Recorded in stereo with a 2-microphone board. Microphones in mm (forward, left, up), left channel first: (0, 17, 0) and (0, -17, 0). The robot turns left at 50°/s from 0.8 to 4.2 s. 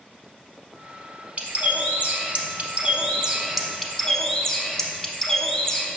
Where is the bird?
60° right, 0.7 m; by 5.9 s 160° left, 0.7 m.